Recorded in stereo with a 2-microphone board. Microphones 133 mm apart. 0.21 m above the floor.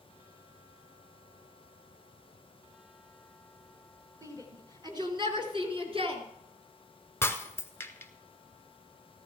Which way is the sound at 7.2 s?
20° left (ahead or behind).